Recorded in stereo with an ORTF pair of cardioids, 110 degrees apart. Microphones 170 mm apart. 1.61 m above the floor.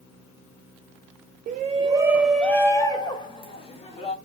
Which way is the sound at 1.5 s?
50° right.